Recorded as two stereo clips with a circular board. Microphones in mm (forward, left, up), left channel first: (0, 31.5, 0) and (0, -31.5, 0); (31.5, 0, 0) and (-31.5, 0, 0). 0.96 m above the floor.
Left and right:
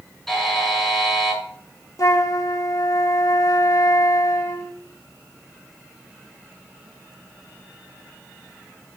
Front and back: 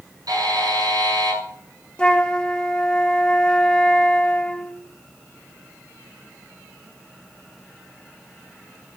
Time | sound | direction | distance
0.3 | a buzzer | 175° left | 8 m
2.0 | a flute | 75° left | 1.1 m